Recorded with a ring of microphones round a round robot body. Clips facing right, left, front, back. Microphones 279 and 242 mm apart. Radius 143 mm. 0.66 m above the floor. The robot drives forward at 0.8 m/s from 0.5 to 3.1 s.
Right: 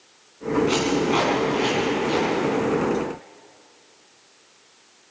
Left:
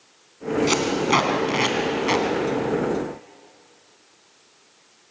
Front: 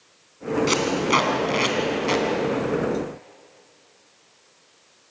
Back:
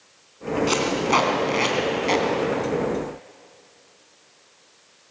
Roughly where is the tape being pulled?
Ahead left.